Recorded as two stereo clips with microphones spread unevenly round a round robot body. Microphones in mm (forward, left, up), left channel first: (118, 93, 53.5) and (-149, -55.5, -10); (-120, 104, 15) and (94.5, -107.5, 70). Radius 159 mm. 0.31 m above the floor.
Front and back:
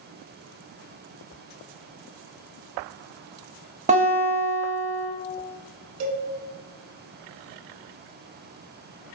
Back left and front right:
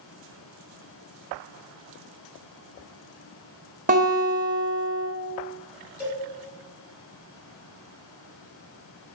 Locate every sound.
3.9 s a guitar: 110° right, 0.7 m
6.0 s a cowbell: 130° right, 0.7 m